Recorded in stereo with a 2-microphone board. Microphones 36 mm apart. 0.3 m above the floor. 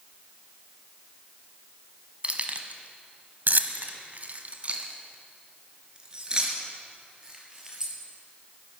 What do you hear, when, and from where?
2.2 s keys jangling: 35° right (ahead or behind), 1.4 m; by 7.9 s 15° right (ahead or behind), 4 m